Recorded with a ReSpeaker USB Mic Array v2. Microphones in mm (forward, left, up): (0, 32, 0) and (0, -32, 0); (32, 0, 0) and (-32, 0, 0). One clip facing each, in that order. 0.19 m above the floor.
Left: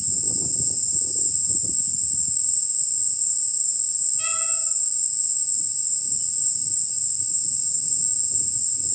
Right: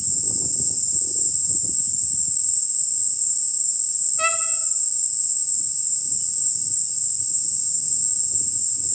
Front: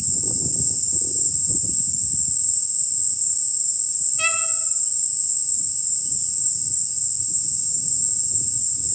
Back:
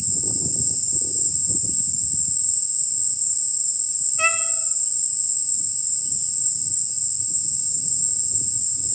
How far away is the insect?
About 3.5 m.